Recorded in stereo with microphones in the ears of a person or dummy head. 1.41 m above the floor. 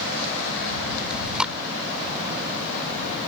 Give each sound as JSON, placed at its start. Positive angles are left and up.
{"t": 1.1, "sound": "chewing", "side_deg": -5}